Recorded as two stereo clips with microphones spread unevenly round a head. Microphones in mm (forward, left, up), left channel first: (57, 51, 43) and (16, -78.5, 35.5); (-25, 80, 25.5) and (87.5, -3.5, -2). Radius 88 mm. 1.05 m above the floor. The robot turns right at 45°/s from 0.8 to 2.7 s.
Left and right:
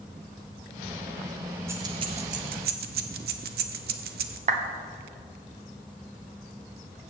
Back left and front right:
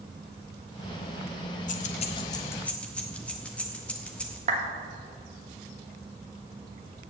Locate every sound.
1.7 s keys jangling: 175° left, 0.5 m; by 4.4 s 140° right, 0.5 m
4.5 s a clap: 85° right, 1.3 m